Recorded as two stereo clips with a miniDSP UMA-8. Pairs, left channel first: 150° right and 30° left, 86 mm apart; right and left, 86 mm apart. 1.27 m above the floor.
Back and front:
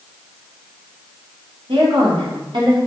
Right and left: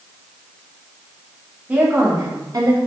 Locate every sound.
1.7 s a woman speaking: 20° left, 1.3 m; by 2.8 s 60° left, 1.3 m